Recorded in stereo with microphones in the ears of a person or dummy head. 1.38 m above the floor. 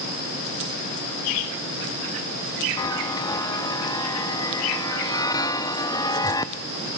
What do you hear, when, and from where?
2.8 s a chime: 15° left (ahead or behind), 0.7 m